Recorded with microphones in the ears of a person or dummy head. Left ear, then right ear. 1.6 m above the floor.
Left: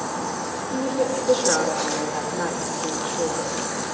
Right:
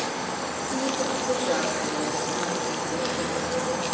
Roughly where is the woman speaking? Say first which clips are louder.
Left 4 dB; left.